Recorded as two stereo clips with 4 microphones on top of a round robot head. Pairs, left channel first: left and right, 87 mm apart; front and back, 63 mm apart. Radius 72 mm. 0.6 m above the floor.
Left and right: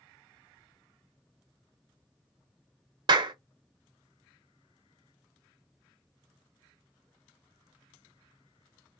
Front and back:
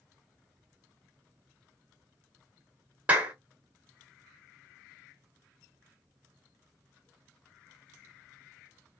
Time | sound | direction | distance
3.1 | a clap | 115° right | 0.8 m